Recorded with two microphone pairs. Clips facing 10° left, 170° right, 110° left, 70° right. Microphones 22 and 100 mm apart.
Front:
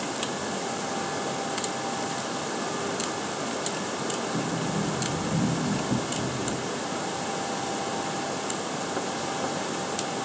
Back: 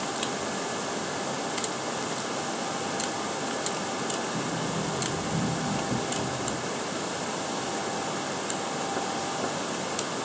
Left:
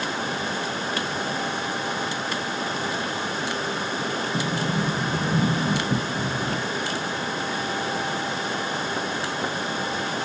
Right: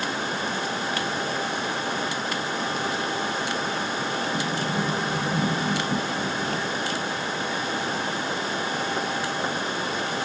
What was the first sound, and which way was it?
A sliding door, 55° left.